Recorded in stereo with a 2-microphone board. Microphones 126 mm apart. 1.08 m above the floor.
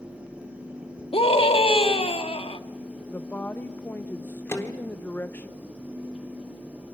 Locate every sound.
1.1 s a scream: 50° left (ahead or behind), 1.8 m
3.1 s a woman speaking: 15° left (ahead or behind), 0.6 m
4.5 s a microwave: 20° left (ahead or behind), 3 m